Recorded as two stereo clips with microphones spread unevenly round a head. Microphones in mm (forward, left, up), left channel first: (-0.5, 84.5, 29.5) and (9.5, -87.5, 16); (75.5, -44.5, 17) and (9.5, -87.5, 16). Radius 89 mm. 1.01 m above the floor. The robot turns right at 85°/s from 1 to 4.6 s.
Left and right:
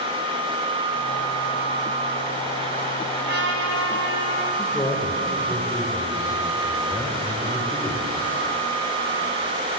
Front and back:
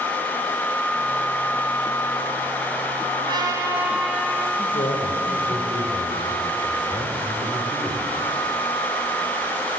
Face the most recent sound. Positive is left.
turn(degrees=15)